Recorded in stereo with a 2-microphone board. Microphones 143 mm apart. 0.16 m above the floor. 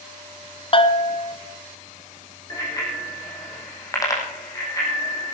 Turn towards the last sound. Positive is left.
turn(degrees=25)  # may be behind; listen again after turning